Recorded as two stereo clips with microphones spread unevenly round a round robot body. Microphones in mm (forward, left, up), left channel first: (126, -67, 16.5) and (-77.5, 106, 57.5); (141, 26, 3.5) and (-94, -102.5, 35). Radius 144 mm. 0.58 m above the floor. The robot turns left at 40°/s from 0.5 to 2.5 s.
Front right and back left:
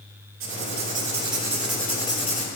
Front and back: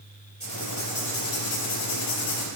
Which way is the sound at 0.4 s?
95° left.